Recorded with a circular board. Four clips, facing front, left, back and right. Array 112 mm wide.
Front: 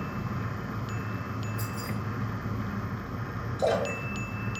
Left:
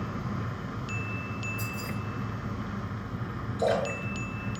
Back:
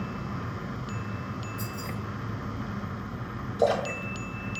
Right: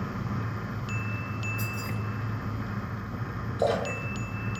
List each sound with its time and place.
1.6 s keys jangling: 75° right, 1.8 m
3.6 s a splash: 160° right, 1.1 m